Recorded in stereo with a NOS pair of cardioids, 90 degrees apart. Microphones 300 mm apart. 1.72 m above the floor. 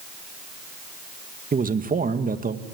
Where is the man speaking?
30° right, 2 m.